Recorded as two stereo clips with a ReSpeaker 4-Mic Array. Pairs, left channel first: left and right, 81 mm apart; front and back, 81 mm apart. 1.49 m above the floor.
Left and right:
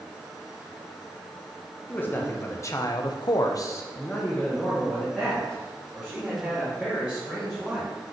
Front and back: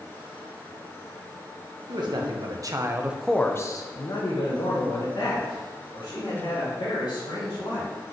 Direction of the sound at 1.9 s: 155° left.